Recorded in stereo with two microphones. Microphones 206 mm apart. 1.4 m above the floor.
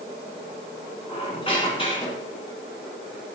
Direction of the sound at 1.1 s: 25° left (ahead or behind).